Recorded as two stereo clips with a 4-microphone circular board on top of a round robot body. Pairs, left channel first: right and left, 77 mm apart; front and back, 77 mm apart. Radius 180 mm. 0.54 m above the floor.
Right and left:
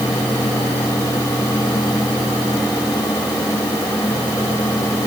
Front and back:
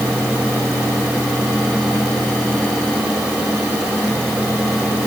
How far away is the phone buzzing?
No phone buzzing in this recording.